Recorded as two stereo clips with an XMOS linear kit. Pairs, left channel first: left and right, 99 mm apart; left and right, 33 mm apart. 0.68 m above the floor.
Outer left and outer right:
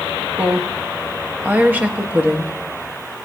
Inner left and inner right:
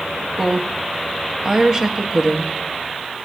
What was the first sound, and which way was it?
A woman speaking, 20° right (ahead or behind).